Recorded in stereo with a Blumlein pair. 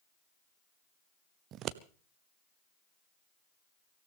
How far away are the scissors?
About 0.7 m.